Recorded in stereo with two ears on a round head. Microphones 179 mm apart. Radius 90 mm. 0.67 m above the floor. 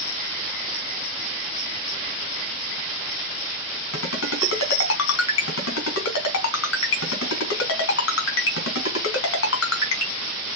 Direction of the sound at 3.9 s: 70° left (ahead or behind).